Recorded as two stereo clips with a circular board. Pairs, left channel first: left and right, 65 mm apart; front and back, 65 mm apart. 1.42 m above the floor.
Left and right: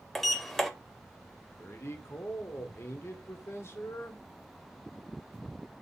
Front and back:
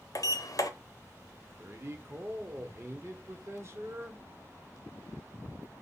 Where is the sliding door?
5° left, 0.5 m.